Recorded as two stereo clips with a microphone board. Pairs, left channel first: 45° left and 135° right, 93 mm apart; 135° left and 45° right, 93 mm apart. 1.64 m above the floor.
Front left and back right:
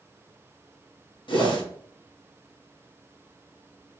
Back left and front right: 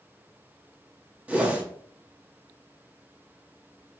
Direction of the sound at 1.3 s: 30° left.